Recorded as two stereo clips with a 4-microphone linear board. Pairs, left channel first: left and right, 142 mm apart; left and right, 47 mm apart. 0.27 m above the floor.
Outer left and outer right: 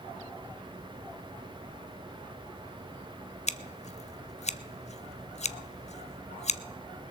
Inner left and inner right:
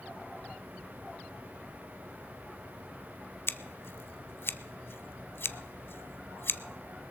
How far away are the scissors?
About 0.6 m.